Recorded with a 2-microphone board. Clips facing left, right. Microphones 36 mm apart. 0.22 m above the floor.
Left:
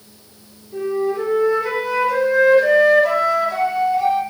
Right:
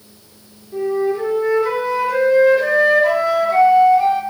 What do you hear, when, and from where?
0.7 s a flute: 10° right (ahead or behind), 0.7 m